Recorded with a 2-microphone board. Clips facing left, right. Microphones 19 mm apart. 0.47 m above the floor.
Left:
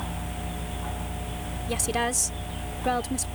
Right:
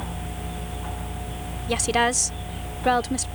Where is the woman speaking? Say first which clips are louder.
Right 6 dB; 30° right (ahead or behind).